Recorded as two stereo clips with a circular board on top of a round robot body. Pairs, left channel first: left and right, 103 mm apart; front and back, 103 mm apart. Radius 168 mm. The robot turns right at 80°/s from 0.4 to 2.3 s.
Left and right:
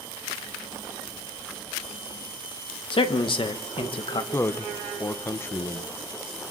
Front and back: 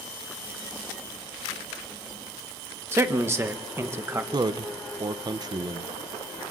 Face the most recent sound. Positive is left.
turn(degrees=150)